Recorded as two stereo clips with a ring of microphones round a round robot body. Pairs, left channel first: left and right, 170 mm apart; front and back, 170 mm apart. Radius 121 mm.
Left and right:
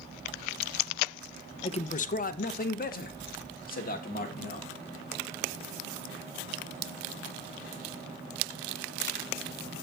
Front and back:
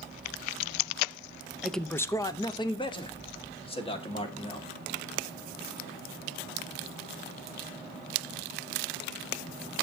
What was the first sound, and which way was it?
A man speaking, 95° left.